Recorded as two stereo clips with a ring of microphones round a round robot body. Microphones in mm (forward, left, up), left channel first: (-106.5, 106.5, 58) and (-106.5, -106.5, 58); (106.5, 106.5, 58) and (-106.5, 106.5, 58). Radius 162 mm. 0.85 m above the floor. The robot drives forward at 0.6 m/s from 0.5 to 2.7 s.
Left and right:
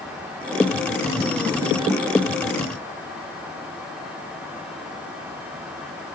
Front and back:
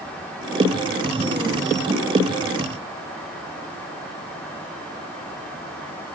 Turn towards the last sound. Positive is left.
No sound to turn to.